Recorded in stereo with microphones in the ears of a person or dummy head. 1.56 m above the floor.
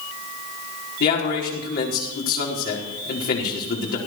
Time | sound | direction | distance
1.0 | a man speaking | 55° left (ahead or behind) | 4.5 m